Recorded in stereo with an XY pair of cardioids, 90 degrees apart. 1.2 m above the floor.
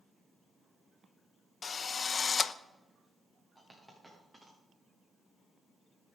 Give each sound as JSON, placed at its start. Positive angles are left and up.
{"t": 1.6, "sound": "a drill", "azimuth_deg": 45, "distance_m": 0.8}
{"t": 3.5, "sound": "a dropped coin", "azimuth_deg": 0, "distance_m": 7.0}